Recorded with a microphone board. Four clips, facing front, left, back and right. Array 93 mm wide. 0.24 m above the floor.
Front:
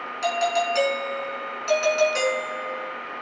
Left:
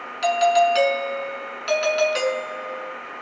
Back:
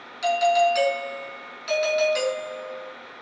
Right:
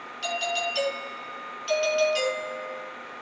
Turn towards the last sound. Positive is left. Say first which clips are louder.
# left 13 dB, back 4 dB
turn(degrees=75)